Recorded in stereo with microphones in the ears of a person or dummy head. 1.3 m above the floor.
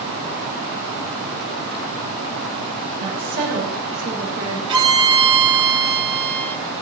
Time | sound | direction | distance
3.0 | a woman speaking | 45° right (ahead or behind) | 4.5 m
4.7 | a violin | 25° right (ahead or behind) | 3 m